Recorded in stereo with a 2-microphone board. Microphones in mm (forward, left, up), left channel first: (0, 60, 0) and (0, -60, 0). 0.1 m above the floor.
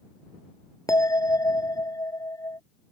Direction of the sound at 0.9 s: 30° left (ahead or behind).